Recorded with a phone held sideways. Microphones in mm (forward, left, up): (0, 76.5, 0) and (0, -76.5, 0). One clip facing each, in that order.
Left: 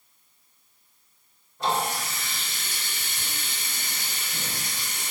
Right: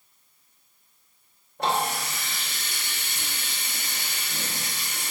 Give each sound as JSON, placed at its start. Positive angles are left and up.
{"t": 1.6, "sound": "a running tap", "side_deg": -65, "distance_m": 1.0}